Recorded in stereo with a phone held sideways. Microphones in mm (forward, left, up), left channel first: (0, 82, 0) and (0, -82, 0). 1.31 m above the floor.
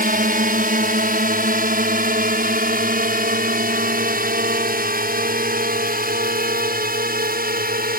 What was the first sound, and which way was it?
A drone, 65° right (ahead or behind).